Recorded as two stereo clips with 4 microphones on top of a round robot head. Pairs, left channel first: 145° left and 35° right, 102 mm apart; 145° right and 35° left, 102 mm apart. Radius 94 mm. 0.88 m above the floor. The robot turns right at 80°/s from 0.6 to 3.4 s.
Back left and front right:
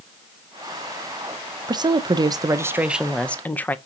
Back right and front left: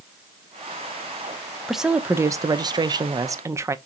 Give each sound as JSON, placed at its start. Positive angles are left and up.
{"t": 1.7, "sound": "a woman speaking", "azimuth_deg": -55, "distance_m": 0.6}